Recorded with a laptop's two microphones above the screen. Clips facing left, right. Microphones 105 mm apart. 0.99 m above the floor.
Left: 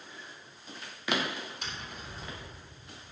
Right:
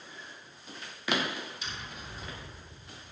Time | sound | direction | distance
1.6 | tapping | 60° left (ahead or behind) | 3 m